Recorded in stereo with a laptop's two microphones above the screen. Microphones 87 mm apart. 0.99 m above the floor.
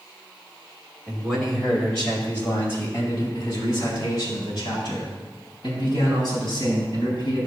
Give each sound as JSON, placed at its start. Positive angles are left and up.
{"t": 1.1, "sound": "a man speaking", "side_deg": -10, "distance_m": 2.5}